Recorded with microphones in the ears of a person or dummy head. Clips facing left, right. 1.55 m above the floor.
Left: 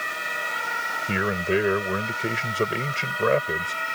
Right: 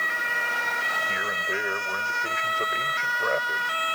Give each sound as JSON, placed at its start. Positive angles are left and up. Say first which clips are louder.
{"t": 1.1, "sound": "a man speaking", "louder": "left 14 dB", "side_deg": 50}